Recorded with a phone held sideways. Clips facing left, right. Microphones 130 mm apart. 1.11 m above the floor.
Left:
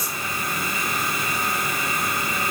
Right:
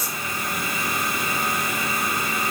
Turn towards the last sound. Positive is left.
No sound to turn to.